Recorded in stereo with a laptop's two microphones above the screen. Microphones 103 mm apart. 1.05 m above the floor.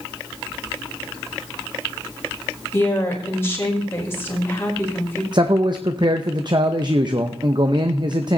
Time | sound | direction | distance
2.7 | a woman speaking | 20° left (ahead or behind) | 4.5 m
5.3 | a man speaking | 45° right (ahead or behind) | 0.8 m